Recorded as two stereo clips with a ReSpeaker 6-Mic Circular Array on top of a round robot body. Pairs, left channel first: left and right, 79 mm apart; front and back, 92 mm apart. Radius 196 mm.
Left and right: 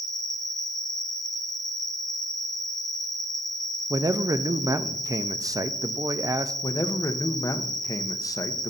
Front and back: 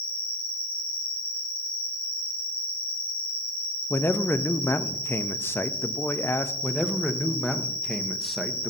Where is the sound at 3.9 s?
60° right, 0.7 m.